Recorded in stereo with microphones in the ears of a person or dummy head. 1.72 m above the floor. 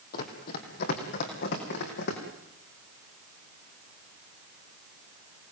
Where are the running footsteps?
50° left (ahead or behind), 3.5 m; by 2.2 s 65° left (ahead or behind), 5.5 m.